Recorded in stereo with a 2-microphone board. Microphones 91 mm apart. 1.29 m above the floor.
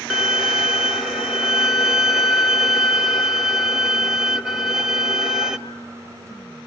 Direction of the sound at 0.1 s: 5° right (ahead or behind).